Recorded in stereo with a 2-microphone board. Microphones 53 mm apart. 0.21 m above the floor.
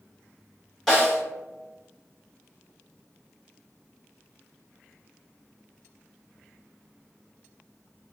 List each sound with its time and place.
0.9 s a snare drum: 5° left (ahead or behind), 1.7 m